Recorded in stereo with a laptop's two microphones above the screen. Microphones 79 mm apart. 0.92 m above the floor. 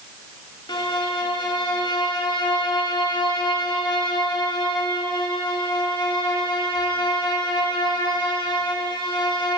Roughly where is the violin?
Left.